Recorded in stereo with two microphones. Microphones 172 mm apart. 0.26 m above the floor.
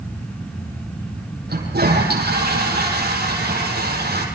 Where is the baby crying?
No baby crying in this recording.